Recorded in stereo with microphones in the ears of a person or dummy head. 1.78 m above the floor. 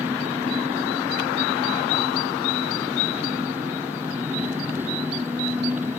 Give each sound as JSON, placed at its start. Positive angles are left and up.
{"t": 0.0, "sound": "an engine running", "side_deg": -15}